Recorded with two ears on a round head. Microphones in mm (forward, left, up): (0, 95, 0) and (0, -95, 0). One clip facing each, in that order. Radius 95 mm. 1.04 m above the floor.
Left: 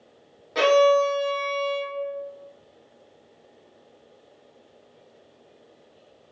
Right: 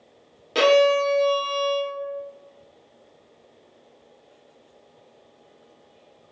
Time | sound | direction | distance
0.6 | a violin | 45° right (ahead or behind) | 0.6 m